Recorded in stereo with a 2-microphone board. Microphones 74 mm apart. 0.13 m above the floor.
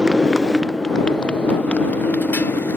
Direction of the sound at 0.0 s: 10° right (ahead or behind).